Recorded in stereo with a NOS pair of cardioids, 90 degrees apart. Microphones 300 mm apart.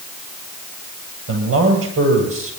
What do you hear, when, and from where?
1.3 s a man speaking: 50° right, 9.5 m